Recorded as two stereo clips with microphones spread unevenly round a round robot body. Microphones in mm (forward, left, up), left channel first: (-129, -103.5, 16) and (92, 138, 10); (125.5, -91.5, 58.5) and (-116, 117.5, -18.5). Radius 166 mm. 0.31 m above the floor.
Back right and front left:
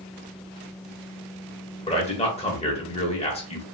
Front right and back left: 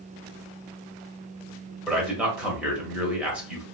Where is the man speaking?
175° right, 1.1 m.